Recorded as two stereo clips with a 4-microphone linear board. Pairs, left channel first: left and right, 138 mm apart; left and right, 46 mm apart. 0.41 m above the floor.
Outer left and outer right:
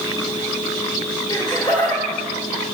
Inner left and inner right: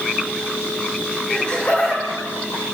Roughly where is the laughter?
Left.